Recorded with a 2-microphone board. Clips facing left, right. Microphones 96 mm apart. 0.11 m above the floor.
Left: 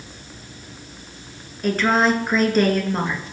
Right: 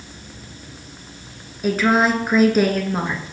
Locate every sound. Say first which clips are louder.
1.6 s a woman speaking: right 1 dB; 5° right (ahead or behind), 1.3 m